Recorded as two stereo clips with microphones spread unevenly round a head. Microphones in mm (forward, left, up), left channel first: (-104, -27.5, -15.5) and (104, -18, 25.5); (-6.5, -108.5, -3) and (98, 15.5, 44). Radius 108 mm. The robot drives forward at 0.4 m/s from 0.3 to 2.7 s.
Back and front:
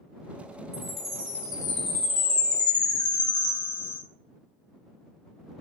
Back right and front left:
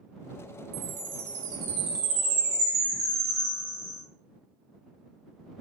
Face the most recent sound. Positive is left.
turn(degrees=110)